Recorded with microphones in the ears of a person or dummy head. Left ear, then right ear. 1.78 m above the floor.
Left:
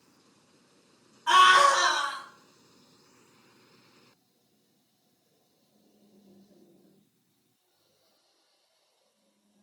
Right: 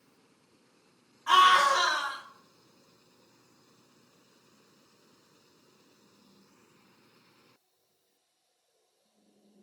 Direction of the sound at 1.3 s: Centre (ahead or behind).